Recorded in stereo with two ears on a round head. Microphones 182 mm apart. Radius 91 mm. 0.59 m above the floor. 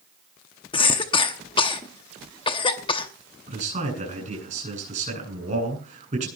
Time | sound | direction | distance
0.7 | a cough | 25° left (ahead or behind) | 0.9 m
3.5 | a man speaking | 35° right (ahead or behind) | 8.5 m